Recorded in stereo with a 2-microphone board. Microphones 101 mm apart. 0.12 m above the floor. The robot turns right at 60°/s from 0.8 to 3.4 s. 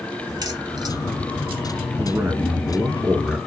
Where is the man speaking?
25° right (ahead or behind), 1.3 m; by 3.4 s centre (ahead or behind), 1.3 m.